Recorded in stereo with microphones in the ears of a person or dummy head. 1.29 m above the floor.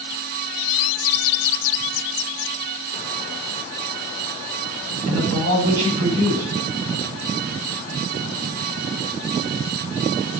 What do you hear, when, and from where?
5.1 s a man speaking: 75° right (ahead or behind), 6 m